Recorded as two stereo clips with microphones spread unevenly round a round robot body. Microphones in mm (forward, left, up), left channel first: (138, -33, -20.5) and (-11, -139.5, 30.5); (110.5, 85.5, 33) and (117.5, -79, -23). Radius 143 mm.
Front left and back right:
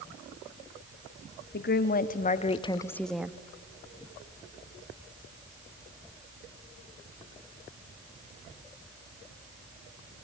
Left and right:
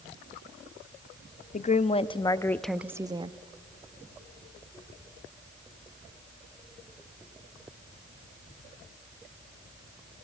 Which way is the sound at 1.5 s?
40° left.